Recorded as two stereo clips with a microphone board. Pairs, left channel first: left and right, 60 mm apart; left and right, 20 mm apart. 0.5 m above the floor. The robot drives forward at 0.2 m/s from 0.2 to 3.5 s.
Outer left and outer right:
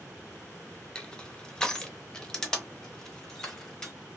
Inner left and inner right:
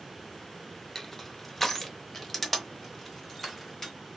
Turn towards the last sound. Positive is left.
turn(degrees=10)  # may be behind; listen again after turning